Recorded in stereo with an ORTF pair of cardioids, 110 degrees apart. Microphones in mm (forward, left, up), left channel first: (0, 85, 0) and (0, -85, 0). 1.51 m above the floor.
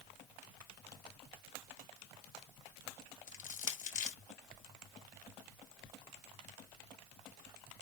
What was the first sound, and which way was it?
Crushing, 50° left.